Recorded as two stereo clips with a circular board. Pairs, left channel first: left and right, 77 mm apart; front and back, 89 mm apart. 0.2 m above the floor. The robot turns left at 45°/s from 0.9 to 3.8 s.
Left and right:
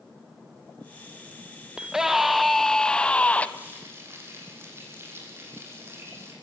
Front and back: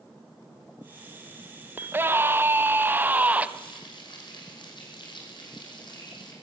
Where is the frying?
20° right, 7.5 m; by 6.3 s 35° right, 7.5 m.